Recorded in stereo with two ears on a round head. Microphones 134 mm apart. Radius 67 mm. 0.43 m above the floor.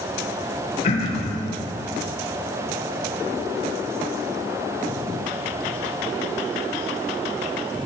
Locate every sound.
0.8 s throat clearing: 45° left (ahead or behind), 1.2 m